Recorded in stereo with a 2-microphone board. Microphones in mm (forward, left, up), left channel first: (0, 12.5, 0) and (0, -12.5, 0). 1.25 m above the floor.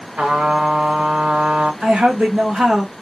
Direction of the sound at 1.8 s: 65° right (ahead or behind).